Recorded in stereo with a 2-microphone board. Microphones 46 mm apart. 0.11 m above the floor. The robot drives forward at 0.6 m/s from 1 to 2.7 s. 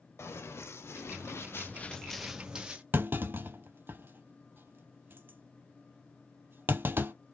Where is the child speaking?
I don't hear a child speaking.